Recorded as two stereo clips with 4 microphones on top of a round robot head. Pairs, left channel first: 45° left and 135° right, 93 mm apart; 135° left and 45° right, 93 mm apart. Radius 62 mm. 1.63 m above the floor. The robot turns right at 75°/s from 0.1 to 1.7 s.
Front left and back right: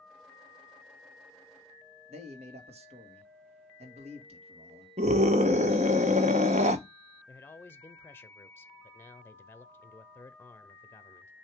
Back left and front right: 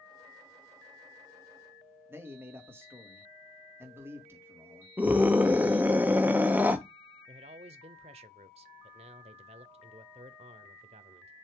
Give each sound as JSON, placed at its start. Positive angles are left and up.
{"t": 2.1, "sound": "a man speaking", "azimuth_deg": -110, "distance_m": 1.7}
{"t": 5.0, "sound": "a scream", "azimuth_deg": -120, "distance_m": 0.9}
{"t": 7.3, "sound": "a man speaking", "azimuth_deg": -20, "distance_m": 0.6}